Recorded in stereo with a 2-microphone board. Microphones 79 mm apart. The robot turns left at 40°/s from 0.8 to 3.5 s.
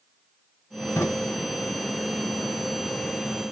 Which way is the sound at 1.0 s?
30° left (ahead or behind).